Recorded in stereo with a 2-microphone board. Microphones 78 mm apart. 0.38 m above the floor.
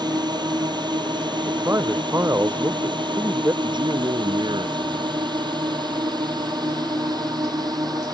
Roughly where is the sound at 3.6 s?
Right.